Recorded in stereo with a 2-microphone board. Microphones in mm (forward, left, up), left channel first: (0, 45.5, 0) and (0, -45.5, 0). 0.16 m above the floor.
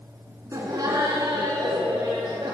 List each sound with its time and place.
0.5 s laughter: 40° right (ahead or behind), 1.3 m; by 2.5 s 60° right (ahead or behind), 2.5 m